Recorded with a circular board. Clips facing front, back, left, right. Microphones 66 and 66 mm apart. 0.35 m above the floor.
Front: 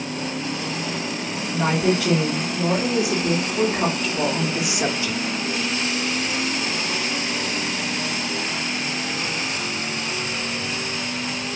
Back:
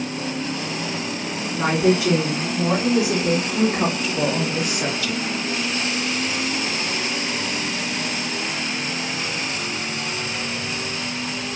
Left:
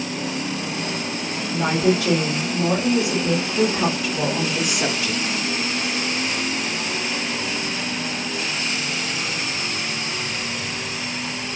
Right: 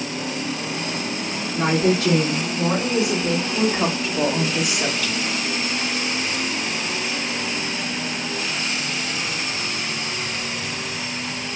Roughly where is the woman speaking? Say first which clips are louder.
Back 2 dB, even; behind right.